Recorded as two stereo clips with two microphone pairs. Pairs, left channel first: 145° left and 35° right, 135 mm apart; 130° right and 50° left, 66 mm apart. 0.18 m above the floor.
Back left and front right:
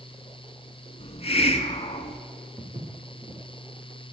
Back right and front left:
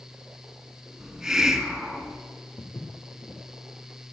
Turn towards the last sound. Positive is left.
turn(degrees=-100)